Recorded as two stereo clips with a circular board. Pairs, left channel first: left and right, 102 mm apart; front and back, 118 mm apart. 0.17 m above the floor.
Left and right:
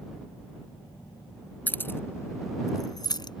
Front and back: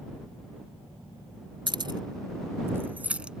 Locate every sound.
1.7 s keys jangling: 155° left; by 3.4 s 95° left